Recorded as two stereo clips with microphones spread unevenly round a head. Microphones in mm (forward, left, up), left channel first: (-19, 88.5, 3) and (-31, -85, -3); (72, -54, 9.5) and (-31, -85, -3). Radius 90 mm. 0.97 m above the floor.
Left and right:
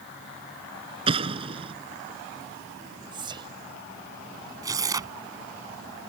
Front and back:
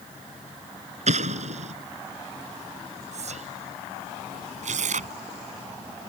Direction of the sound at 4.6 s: 165° right.